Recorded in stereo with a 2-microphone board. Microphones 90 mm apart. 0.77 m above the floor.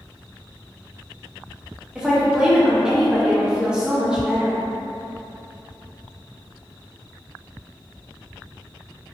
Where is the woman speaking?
10° right (ahead or behind), 1.0 m.